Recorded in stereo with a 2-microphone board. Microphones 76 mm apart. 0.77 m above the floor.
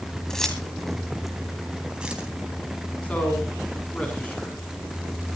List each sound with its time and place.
0.3 s keys jangling: 5° left (ahead or behind), 3.5 m; by 2.3 s 15° right (ahead or behind), 3.5 m
3.0 s a man speaking: 15° left (ahead or behind), 7.5 m